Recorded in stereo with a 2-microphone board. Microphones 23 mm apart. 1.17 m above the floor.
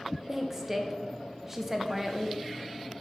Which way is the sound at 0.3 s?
20° right (ahead or behind).